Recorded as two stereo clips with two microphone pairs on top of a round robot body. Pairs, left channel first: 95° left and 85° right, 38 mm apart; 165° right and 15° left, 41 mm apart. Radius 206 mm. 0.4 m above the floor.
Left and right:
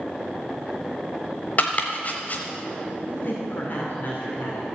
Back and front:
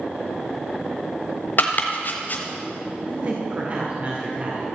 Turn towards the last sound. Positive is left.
turn(degrees=60)